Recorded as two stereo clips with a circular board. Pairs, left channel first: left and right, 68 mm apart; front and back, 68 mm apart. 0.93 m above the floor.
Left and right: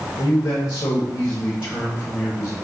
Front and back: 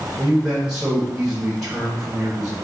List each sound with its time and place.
0.2 s a man speaking: 95° left, 0.8 m